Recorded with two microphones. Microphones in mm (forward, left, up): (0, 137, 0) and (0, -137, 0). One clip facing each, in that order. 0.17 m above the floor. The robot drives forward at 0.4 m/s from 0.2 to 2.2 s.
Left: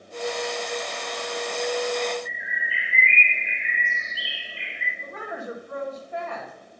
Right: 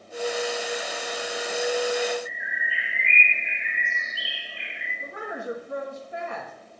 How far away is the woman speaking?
About 1.5 m.